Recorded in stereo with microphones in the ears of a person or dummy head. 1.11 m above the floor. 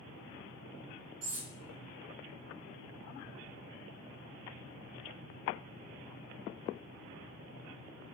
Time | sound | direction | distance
1.2 | cutlery clinking | 60° right (ahead or behind) | 0.7 m